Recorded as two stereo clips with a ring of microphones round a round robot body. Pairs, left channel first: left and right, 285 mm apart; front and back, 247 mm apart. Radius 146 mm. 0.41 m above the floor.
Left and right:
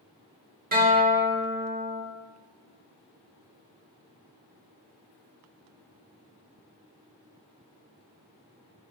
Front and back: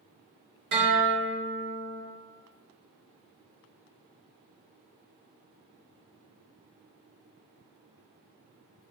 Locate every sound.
0.7 s a guitar: 145° right, 0.7 m